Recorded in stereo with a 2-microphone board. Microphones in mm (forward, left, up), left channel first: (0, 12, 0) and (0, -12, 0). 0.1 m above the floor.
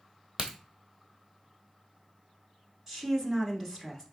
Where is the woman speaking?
20° right (ahead or behind), 1.1 m.